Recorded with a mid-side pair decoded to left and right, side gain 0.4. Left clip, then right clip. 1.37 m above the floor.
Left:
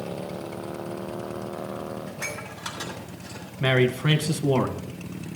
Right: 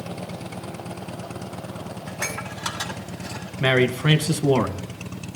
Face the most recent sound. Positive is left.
turn(degrees=-35)